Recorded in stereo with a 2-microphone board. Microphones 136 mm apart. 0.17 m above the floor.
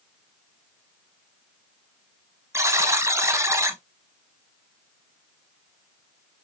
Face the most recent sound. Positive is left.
turn(degrees=-20)  # may be behind; listen again after turning